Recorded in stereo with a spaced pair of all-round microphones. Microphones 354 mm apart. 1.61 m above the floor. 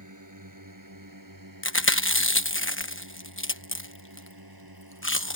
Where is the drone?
55° right (ahead or behind); by 5.4 s 85° right.